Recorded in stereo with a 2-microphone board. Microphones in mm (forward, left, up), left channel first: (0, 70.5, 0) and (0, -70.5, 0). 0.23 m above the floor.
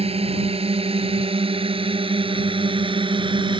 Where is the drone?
45° right (ahead or behind); by 3.6 s 35° right (ahead or behind).